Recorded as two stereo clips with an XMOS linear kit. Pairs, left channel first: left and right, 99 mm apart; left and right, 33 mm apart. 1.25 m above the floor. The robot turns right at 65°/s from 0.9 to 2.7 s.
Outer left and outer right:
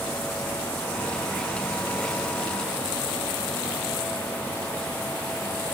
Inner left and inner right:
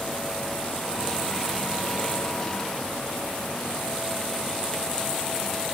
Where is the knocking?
No knocking in this recording.